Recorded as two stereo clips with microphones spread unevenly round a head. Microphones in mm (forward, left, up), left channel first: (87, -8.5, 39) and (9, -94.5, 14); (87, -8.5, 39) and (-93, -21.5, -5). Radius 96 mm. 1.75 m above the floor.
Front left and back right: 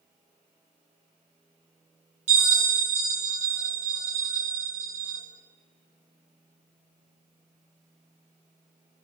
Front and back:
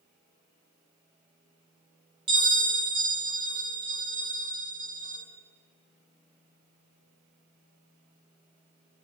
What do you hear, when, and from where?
2.3 s a bell: 110° right, 5 m